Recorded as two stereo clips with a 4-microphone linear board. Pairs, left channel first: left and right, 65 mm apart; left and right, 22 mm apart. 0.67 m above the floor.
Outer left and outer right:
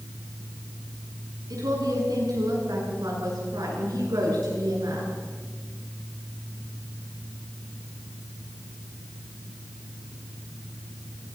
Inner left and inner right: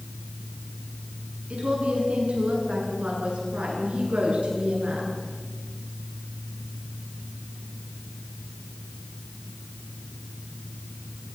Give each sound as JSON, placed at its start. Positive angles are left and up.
{"t": 1.5, "sound": "a woman speaking", "side_deg": -75, "distance_m": 8.5}